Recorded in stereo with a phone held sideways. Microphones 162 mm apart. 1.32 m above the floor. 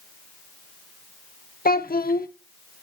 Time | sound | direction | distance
1.6 | a child speaking | 60° left (ahead or behind) | 0.7 m